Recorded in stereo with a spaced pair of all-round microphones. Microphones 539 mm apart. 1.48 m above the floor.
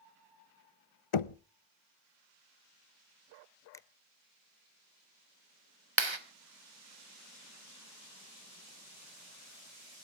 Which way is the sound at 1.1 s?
65° left (ahead or behind).